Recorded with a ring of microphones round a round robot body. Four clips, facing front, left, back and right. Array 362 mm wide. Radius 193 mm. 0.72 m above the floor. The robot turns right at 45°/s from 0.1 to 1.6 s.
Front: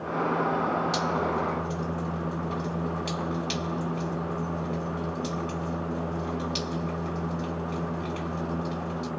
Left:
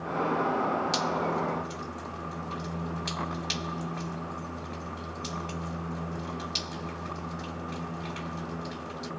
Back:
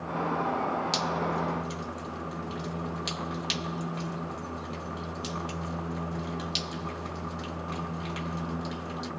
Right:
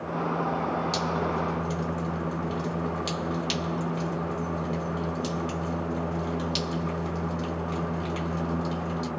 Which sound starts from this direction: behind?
Dripping, at 0.9 s.